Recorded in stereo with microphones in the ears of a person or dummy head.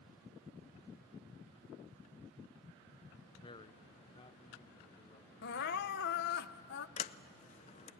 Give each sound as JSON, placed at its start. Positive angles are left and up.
{"t": 3.4, "sound": "a man speaking", "side_deg": 20, "distance_m": 0.6}
{"t": 5.4, "sound": "crying", "side_deg": 50, "distance_m": 0.5}
{"t": 7.0, "sound": "a sliding door", "side_deg": 30, "distance_m": 0.6}